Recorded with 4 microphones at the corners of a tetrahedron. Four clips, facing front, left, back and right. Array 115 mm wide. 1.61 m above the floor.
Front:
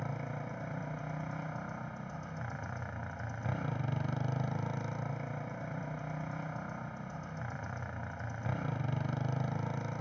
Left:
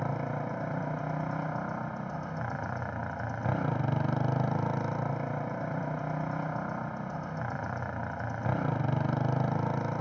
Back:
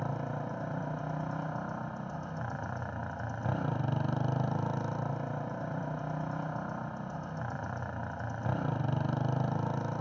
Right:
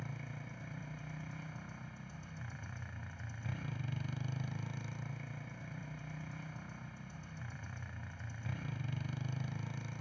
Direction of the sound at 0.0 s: 110° left.